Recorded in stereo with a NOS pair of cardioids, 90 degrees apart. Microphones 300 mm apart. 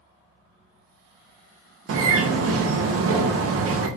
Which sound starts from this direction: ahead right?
A bird, at 1.9 s.